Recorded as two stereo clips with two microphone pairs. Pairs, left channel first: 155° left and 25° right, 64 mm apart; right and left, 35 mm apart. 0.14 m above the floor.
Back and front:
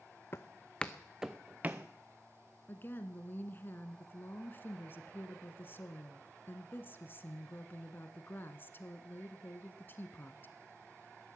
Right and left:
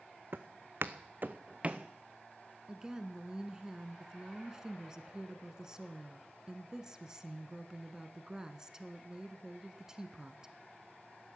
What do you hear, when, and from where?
0.3 s footsteps: 105° left, 0.8 m; by 1.9 s 30° left, 0.9 m
2.7 s a woman speaking: 140° left, 1.2 m